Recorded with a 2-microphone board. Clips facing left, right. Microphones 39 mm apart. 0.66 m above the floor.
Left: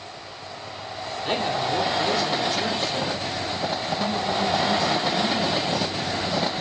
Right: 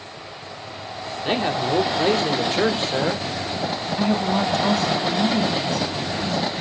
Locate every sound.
1.2 s a man speaking: 20° right (ahead or behind), 1.7 m; by 3.2 s 60° right (ahead or behind), 2 m
4.0 s a woman speaking: 75° right (ahead or behind), 3.5 m